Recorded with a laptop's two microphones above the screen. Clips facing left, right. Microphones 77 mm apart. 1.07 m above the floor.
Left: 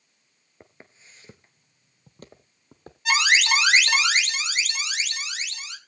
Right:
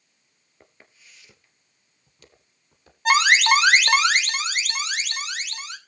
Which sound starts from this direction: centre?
Footsteps, at 0.6 s.